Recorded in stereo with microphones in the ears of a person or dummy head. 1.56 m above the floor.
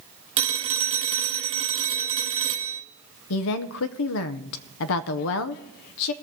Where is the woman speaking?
55° left (ahead or behind), 0.7 m.